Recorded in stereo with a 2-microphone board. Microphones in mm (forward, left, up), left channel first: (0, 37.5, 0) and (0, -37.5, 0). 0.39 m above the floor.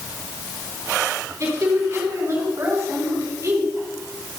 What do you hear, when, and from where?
1.4 s a woman speaking: 45° right (ahead or behind), 4 m